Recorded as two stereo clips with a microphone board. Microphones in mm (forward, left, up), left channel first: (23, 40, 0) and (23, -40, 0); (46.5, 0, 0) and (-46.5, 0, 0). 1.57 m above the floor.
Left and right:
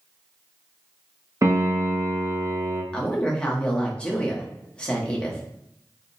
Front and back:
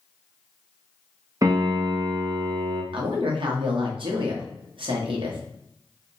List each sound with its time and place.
1.4 s a piano: 130° right, 0.6 m
2.9 s a woman speaking: 165° left, 0.7 m